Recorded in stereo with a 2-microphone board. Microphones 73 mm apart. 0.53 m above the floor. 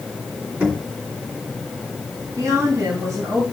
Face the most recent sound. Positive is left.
turn(degrees=-50)  # may be behind; listen again after turning